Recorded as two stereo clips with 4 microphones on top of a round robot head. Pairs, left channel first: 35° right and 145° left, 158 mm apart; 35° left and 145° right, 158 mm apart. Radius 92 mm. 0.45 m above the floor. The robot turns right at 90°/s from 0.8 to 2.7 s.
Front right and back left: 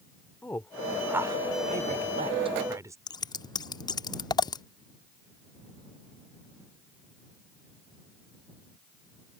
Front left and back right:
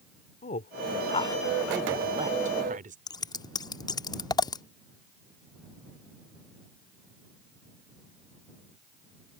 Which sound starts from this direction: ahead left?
A woman speaking, at 0.4 s.